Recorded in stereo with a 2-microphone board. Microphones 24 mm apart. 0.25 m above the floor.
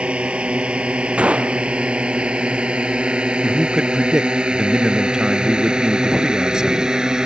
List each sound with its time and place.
0.0 s a drone: 60° right (ahead or behind); by 7.3 s 35° right (ahead or behind)
1.2 s a gunshot: 65° right (ahead or behind)
3.4 s a man speaking: 25° right (ahead or behind)